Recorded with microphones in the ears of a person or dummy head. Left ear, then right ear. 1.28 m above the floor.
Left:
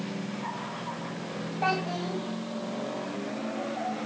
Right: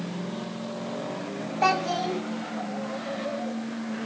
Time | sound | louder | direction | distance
1.6 | a child speaking | right 5 dB | 75° right (ahead or behind) | 1.9 m